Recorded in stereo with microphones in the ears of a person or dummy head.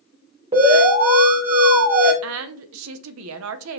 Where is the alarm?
25° right (ahead or behind), 1.4 m.